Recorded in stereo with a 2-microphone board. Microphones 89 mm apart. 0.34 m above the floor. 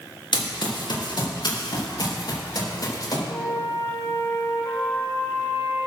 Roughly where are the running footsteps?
Left.